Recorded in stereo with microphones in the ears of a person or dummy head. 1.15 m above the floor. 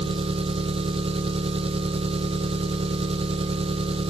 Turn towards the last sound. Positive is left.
turn(degrees=-30)  # may be behind; listen again after turning